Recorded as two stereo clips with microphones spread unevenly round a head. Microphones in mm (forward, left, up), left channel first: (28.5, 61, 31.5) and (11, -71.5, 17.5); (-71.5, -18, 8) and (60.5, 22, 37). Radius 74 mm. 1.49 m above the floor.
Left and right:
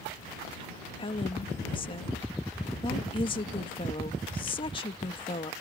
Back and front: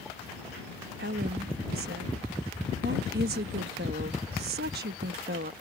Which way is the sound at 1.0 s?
30° left.